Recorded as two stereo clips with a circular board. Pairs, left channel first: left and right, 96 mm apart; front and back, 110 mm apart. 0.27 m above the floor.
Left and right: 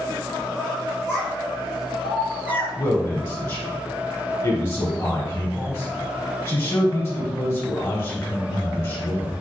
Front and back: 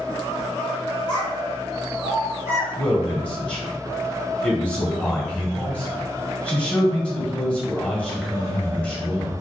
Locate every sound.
1.1 s a child speaking: 30° left, 1.3 m; by 2.7 s 5° left, 2 m
2.8 s a man speaking: 65° left, 1.2 m